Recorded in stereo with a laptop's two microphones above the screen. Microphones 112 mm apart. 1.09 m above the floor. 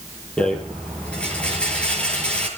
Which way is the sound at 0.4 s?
10° left (ahead or behind).